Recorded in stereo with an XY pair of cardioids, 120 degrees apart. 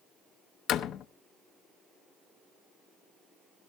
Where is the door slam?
65° left, 0.8 m.